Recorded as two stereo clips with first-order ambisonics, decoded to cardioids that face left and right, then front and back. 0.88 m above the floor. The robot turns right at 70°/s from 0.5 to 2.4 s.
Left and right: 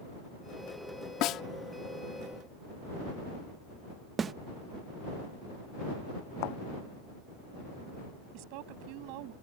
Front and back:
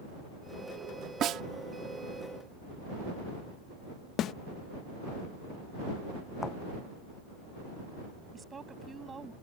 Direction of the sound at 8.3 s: 105° right.